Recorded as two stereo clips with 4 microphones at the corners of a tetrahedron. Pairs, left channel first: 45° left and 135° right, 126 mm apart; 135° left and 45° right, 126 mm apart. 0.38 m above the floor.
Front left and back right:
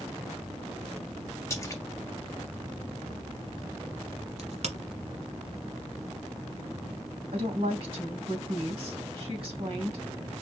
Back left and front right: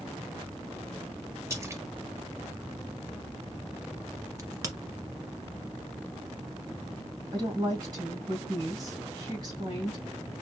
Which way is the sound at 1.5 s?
5° right.